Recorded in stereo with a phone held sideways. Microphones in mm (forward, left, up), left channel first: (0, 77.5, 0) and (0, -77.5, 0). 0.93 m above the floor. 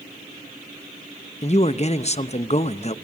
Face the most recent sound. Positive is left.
turn(degrees=45)  # may be behind; listen again after turning